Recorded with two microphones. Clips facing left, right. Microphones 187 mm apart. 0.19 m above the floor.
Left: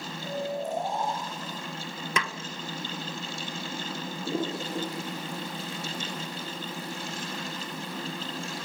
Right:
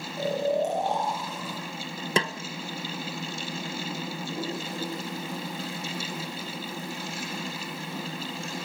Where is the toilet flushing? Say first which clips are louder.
Left 7 dB; 75° left (ahead or behind), 8 m.